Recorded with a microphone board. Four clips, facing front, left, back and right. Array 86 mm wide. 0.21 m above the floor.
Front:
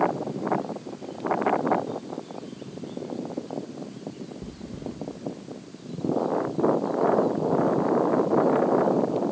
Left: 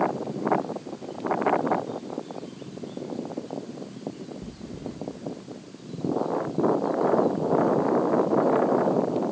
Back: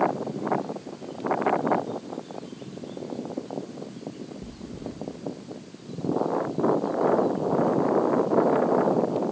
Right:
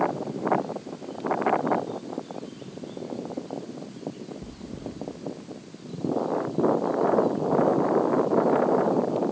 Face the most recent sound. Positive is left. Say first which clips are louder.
# even, front 1 dB
turn(degrees=-30)